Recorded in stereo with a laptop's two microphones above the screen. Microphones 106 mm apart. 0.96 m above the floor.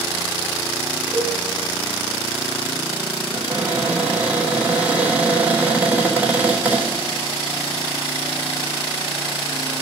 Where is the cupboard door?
15° right (ahead or behind), 3.5 m.